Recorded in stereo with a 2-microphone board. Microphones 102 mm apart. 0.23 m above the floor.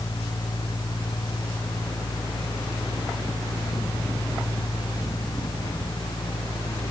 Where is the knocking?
No knocking in this recording.